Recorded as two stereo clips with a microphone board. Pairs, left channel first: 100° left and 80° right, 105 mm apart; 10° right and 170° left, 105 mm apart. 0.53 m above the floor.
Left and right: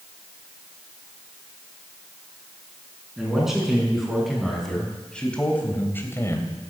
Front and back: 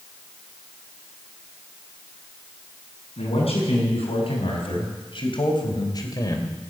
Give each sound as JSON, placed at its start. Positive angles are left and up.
{"t": 3.2, "sound": "a man speaking", "azimuth_deg": 5, "distance_m": 6.5}